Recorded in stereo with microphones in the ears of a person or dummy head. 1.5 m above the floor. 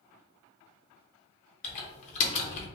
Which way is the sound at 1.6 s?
40° left (ahead or behind).